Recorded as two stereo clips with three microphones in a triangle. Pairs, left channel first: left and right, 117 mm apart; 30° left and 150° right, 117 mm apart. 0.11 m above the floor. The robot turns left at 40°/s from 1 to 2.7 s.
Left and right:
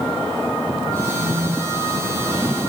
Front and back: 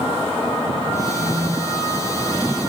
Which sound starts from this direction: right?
A phone buzzing, at 1.1 s.